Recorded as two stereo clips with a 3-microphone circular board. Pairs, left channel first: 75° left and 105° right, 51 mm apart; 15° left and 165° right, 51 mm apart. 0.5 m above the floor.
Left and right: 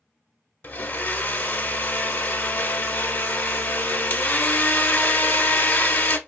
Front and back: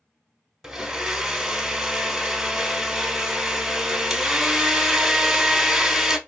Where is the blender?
115° left, 0.6 m.